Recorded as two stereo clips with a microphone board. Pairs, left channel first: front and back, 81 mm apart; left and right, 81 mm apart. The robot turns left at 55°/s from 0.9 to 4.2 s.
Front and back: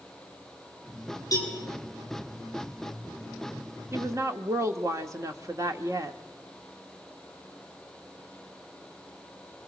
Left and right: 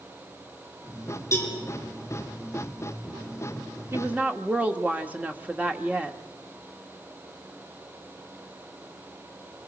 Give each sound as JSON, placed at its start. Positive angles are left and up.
{"t": 1.3, "sound": "a cowbell", "azimuth_deg": 40, "distance_m": 6.0}
{"t": 3.9, "sound": "a woman speaking", "azimuth_deg": -135, "distance_m": 1.3}